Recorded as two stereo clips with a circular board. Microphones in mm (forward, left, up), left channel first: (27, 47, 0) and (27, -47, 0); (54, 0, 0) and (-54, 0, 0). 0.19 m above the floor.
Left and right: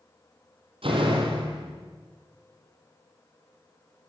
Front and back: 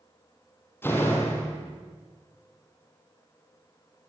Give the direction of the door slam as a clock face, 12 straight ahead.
2 o'clock.